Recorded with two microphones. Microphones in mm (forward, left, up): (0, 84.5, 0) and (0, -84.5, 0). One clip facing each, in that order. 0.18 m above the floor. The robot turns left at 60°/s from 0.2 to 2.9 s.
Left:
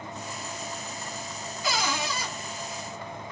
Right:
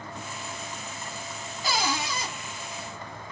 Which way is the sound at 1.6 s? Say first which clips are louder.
Right 1 dB; 95° right.